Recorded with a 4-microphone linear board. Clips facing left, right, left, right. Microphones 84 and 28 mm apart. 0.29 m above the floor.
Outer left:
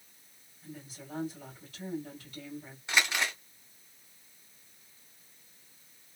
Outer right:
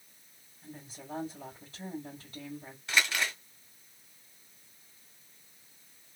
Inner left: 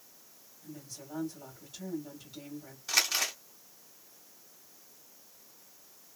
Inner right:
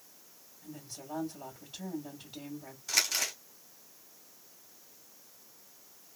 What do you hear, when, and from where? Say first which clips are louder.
0.6 s a woman speaking: even, inner right 1 dB; 25° right (ahead or behind), 1.6 m
2.9 s crumpling: even, inner left 2 dB; 15° left (ahead or behind), 2 m